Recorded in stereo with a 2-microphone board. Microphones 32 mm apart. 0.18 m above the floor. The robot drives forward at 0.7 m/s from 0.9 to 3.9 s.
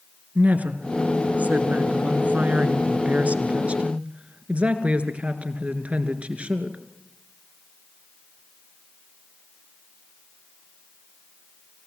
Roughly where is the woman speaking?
Right.